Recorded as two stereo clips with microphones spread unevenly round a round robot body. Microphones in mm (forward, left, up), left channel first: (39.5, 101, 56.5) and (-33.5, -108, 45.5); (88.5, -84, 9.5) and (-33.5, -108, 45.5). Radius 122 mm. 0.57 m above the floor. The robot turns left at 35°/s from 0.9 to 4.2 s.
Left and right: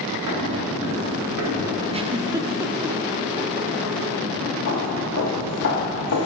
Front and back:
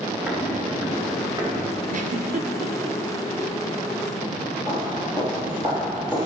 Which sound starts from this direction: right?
Footsteps, at 0.3 s.